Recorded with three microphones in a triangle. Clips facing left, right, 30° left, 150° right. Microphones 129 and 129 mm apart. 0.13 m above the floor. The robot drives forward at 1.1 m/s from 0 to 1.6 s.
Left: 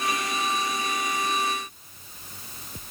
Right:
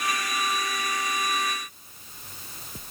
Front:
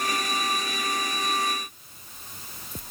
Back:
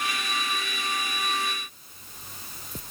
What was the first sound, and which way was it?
Only background noise.